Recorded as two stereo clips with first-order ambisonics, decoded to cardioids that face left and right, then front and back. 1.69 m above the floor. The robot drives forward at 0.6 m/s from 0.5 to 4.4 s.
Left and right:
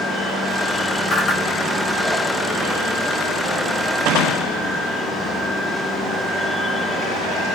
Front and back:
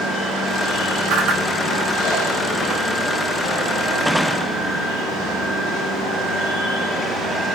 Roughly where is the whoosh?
Behind.